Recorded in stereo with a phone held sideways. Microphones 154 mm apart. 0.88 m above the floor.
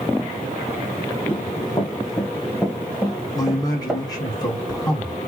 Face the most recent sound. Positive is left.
turn(degrees=25)  # may be behind; listen again after turning